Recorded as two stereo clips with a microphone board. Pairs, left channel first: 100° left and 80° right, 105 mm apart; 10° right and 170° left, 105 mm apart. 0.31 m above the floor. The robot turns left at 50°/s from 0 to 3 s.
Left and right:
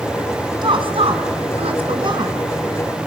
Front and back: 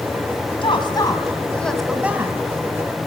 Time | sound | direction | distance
0.6 | a woman speaking | 40° right | 2.5 m